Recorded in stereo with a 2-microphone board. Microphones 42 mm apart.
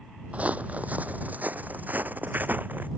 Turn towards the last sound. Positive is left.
turn(degrees=-40)  # may be behind; listen again after turning